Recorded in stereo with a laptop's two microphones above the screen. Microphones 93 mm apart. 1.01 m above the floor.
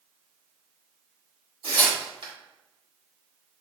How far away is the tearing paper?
About 2 m.